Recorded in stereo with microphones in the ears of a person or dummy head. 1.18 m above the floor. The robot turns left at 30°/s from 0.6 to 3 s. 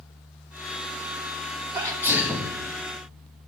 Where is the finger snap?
No finger snap in this recording.